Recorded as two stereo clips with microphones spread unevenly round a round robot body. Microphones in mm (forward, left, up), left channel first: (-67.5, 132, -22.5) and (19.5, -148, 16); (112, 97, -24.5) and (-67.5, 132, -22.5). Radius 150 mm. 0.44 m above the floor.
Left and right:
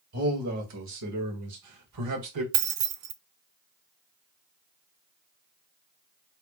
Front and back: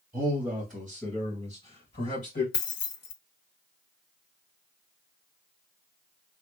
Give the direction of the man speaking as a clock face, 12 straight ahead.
4 o'clock.